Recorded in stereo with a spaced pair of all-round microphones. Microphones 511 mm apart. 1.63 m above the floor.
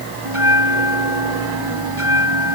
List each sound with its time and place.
0.2 s a bell: 75° right (ahead or behind)